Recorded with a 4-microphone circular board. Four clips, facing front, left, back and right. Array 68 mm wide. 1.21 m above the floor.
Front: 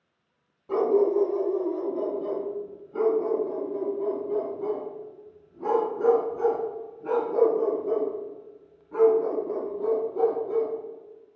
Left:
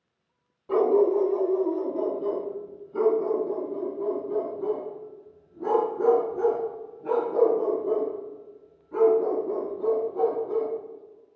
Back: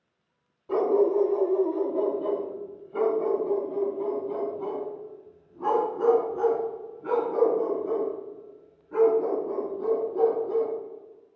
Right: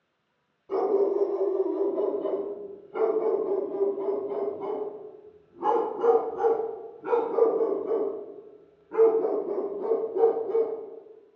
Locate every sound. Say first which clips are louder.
0.7 s a dog barking: left 3 dB, even; 95° left, 1.0 m; by 10.7 s 110° right, 5.5 m